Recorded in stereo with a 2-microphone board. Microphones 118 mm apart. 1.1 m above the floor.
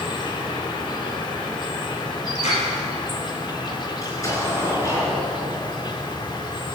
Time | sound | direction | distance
0.0 | an insect | 40° left (ahead or behind) | 1.4 m
2.4 | a clap | 75° left (ahead or behind) | 4 m
4.0 | an explosion | 25° left (ahead or behind) | 4.5 m